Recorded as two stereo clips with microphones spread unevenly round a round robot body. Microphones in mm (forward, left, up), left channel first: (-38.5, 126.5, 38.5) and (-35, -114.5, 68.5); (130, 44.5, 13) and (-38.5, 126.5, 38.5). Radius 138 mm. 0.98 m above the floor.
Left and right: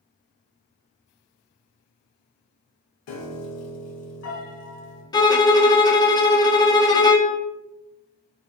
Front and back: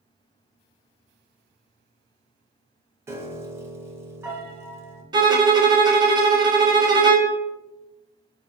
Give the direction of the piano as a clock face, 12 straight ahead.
10 o'clock.